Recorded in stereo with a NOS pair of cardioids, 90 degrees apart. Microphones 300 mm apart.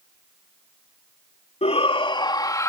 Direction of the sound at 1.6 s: 20° left.